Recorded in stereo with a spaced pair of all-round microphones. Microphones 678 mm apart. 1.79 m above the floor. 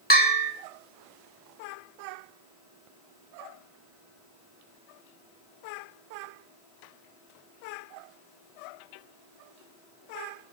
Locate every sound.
0.1 s a bell: 15° left (ahead or behind), 3 m